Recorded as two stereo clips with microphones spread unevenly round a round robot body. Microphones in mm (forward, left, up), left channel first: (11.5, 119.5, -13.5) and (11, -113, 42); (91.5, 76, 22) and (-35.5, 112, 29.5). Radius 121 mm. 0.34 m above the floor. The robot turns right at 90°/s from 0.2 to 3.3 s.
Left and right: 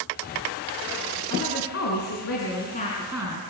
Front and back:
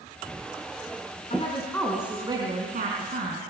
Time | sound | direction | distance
1.3 | a woman speaking | 15° left | 4.5 m